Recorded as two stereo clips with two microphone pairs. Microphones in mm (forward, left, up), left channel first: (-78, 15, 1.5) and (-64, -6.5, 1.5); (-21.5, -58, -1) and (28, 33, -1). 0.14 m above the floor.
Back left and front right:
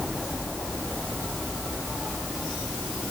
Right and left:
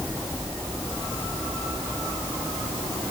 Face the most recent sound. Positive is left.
No sound to turn to.